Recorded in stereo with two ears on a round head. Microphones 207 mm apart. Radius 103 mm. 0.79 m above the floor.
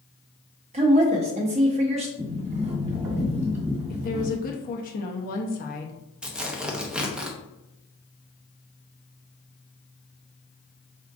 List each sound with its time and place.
0.7 s a woman speaking: 30° right (ahead or behind), 0.7 m
2.2 s a sliding door: 30° right (ahead or behind), 1.4 m
3.9 s a woman speaking: 40° left (ahead or behind), 0.7 m
6.2 s tearing paper: 5° right (ahead or behind), 0.6 m